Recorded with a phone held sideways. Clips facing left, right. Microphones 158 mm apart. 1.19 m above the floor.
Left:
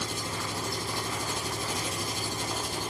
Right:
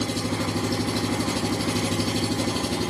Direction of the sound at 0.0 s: 85° right.